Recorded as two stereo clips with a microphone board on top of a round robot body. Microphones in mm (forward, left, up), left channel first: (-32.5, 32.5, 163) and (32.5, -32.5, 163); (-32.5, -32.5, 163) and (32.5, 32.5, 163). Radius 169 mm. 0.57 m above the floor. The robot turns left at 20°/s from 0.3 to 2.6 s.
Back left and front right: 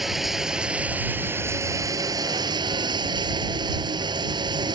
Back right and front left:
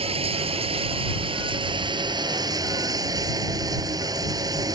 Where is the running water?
45° left; by 4.8 s 5° right.